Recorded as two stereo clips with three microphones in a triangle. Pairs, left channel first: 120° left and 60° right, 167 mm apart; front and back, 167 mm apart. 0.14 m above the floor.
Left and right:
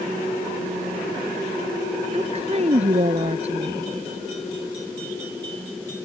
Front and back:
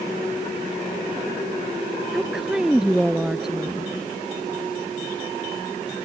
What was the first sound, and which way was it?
A woman speaking, 95° right.